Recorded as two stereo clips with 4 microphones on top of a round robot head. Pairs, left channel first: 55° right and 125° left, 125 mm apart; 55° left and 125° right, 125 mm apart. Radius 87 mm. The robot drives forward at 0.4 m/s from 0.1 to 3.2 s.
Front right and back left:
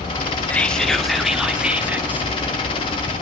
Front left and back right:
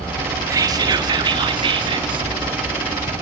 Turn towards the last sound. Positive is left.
turn(degrees=-170)